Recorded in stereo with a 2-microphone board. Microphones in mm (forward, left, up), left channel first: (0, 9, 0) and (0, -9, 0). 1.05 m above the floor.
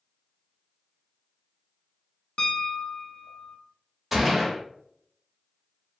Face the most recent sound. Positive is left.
turn(degrees=-15)  # may be behind; listen again after turning